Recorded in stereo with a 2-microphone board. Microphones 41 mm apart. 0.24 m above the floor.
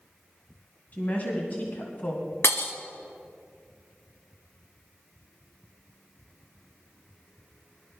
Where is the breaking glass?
70° left (ahead or behind), 1.3 m.